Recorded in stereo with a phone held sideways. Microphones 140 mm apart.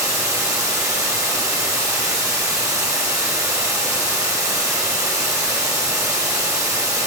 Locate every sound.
0.0 s running water: 20° right (ahead or behind), 1.3 m